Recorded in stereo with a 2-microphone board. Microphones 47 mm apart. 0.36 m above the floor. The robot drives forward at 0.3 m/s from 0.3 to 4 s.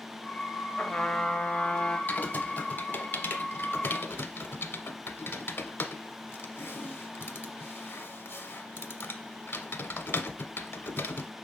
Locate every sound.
0.8 s a trumpet: 25° left (ahead or behind), 1.0 m; by 2.0 s 20° left (ahead or behind), 1.2 m
2.1 s typing on a keyboard: 35° left (ahead or behind), 1.1 m; by 11.3 s 50° left (ahead or behind), 0.8 m